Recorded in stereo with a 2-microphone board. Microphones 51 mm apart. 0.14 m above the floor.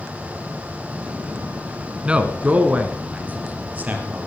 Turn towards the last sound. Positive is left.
turn(degrees=-30)  # may be behind; listen again after turning